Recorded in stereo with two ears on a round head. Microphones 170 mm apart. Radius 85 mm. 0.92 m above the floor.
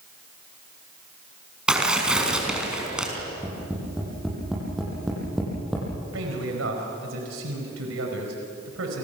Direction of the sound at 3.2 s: Centre (ahead or behind).